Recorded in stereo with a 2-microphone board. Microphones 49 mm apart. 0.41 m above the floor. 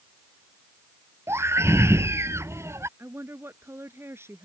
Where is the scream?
60° right (ahead or behind); by 2.9 s 65° right (ahead or behind).